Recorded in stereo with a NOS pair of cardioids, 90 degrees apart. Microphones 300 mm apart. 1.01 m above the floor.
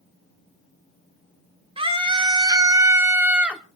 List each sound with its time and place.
1.8 s a scream: 20° right, 3.5 m; by 3.6 s straight ahead, 3 m